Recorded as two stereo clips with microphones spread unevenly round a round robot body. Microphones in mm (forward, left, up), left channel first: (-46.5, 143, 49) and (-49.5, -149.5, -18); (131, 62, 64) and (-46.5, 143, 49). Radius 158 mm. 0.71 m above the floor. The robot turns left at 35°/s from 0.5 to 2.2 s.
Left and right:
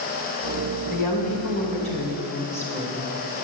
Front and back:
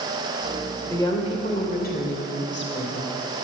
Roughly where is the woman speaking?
Ahead left.